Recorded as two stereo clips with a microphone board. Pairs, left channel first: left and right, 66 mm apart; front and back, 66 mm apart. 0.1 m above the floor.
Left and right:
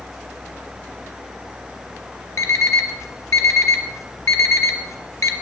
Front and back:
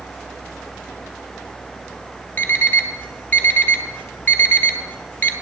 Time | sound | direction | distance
2.4 | an alarm clock | 55° left | 1.1 m